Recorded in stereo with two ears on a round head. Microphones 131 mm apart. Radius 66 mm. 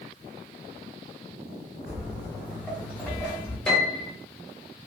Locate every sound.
1.9 s footsteps: 20° right (ahead or behind), 2 m; by 3.6 s 10° right (ahead or behind), 3.5 m
3.7 s a piano: 5° left (ahead or behind), 2.5 m